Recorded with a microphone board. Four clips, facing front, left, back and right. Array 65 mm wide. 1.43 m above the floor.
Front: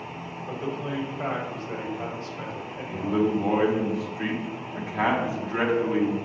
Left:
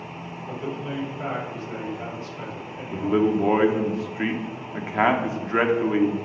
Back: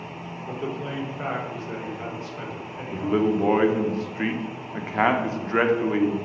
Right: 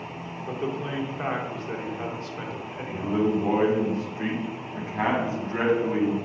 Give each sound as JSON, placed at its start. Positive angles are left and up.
{"t": 0.5, "sound": "a man speaking", "azimuth_deg": -110, "distance_m": 1.7}
{"t": 2.9, "sound": "a man speaking", "azimuth_deg": 135, "distance_m": 0.9}